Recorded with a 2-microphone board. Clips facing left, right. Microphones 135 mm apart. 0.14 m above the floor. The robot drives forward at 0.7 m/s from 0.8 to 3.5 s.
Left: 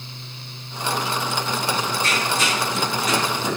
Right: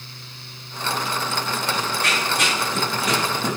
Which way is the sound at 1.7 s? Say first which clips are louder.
Even; 70° right (ahead or behind).